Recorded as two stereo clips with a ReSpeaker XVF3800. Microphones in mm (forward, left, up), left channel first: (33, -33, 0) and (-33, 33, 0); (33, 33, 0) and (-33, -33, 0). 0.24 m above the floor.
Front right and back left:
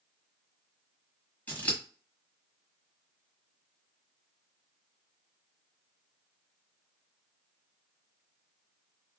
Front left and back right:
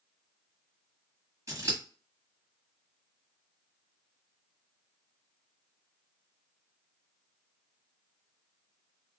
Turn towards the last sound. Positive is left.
turn(degrees=-105)